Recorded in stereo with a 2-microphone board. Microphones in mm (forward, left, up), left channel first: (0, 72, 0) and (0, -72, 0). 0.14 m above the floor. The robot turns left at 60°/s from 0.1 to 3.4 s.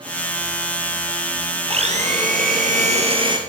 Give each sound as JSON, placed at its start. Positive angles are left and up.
{"t": 1.7, "sound": "a blender", "azimuth_deg": -45, "distance_m": 2.0}